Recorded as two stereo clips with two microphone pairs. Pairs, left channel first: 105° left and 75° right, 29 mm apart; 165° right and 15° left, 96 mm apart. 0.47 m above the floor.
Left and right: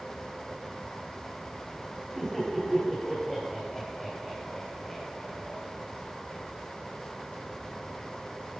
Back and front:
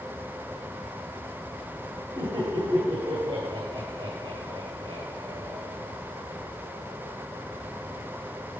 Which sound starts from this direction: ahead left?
Laughter, at 2.1 s.